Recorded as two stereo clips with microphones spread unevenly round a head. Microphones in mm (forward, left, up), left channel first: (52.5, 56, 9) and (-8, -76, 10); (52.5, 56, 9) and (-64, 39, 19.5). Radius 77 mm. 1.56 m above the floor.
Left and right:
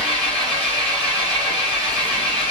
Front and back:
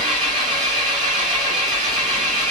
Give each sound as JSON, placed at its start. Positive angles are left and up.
{"t": 0.0, "sound": "an engine running", "azimuth_deg": 150, "distance_m": 3.5}